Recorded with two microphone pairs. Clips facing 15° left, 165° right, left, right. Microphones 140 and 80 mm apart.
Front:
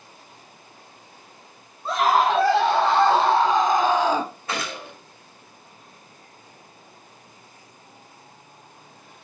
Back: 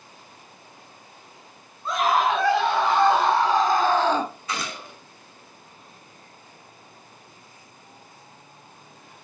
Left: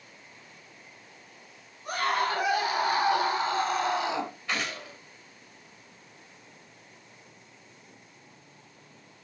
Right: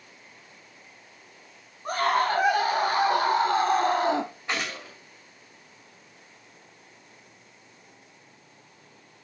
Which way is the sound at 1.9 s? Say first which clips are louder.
Front 2 dB, right 4 dB; 40° right.